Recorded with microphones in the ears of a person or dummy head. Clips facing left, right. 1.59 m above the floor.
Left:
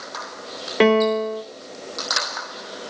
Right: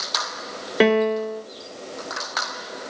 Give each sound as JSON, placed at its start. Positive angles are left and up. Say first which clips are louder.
{"t": 0.8, "sound": "a piano", "louder": "left 2 dB", "side_deg": 0, "distance_m": 0.9}